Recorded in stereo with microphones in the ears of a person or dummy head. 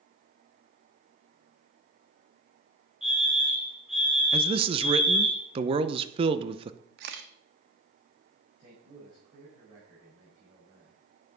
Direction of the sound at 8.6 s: 30° right (ahead or behind).